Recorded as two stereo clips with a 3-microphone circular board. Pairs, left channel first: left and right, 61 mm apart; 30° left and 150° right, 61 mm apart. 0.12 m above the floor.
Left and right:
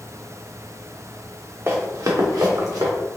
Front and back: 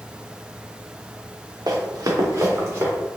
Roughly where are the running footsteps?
Behind right.